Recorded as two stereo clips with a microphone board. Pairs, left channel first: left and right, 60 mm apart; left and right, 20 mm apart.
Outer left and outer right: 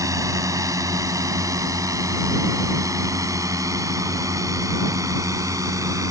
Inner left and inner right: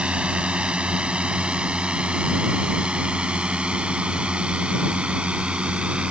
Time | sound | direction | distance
0.0 | a drone | 70° right (ahead or behind) | ?